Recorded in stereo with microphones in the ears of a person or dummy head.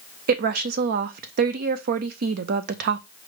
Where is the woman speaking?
50° right (ahead or behind), 0.6 m.